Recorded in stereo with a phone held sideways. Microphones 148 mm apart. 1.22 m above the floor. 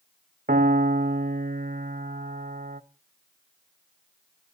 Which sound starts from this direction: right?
A piano, at 0.5 s.